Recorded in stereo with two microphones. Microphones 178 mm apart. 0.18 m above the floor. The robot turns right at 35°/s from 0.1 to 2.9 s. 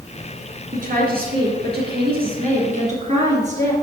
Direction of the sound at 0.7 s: 125° right.